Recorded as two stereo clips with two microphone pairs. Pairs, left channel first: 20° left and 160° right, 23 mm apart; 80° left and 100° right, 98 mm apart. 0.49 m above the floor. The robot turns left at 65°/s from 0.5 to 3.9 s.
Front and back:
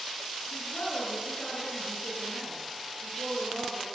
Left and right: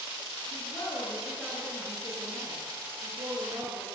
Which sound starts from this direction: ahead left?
A woman speaking, at 0.5 s.